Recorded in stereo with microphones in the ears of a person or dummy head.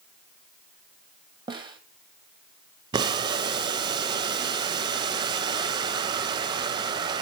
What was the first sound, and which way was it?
A snare drum, 25° right (ahead or behind).